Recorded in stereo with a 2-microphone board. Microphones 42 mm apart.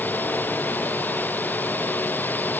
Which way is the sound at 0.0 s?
45° left (ahead or behind).